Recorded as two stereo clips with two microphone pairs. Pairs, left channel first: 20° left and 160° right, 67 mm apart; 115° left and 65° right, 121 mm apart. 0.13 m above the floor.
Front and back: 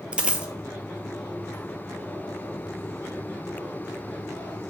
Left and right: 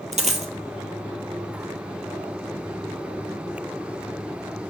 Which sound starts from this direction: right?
A dropped coin, at 0.1 s.